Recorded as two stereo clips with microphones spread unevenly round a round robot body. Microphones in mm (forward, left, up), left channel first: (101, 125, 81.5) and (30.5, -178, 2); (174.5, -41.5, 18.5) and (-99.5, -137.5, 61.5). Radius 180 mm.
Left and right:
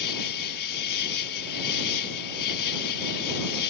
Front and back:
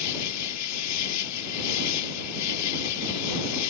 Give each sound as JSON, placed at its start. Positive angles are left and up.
{"t": 0.0, "sound": "an insect", "azimuth_deg": 50}